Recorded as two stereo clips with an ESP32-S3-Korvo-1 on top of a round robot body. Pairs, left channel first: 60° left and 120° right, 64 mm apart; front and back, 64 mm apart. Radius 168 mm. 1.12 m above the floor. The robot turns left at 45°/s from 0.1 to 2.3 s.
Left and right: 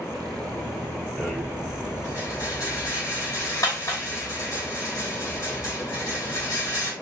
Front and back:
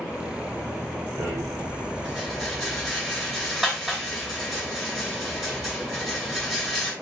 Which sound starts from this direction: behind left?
A rattle, at 1.2 s.